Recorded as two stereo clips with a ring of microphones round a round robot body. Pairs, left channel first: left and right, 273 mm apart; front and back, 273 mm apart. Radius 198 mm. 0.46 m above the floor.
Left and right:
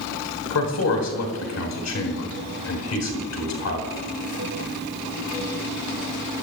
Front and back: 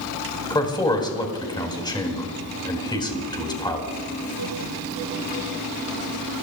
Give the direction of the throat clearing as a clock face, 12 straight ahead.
I don't hear throat clearing.